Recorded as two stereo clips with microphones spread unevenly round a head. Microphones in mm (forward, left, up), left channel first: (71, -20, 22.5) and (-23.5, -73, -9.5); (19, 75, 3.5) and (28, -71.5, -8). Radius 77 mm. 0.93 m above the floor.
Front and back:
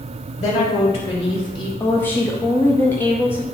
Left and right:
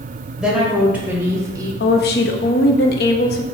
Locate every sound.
0.4 s a woman speaking: straight ahead, 4 m; by 1.7 s 25° right, 2.5 m
1.8 s a woman speaking: 110° left, 1.1 m